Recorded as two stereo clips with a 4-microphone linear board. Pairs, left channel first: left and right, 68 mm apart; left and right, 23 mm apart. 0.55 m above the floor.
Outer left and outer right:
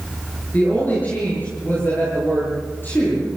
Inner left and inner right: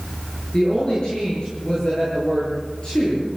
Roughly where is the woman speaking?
Left.